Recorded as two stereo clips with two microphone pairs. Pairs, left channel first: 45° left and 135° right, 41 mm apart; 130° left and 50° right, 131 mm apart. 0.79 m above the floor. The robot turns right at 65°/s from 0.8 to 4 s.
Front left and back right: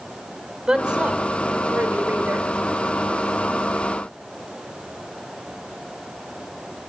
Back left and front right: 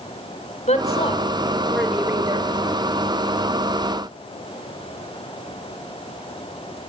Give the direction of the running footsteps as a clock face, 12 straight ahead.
I don't hear running footsteps.